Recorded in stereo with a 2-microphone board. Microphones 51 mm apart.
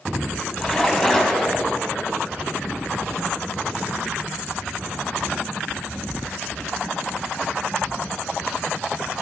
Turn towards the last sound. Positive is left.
turn(degrees=20)  # may be behind; listen again after turning